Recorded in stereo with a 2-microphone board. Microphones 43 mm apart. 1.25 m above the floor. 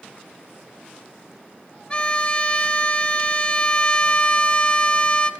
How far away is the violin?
About 0.6 m.